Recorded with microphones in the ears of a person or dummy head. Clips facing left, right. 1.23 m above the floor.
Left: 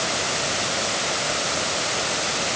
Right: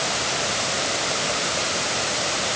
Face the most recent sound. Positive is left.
No sound to turn to.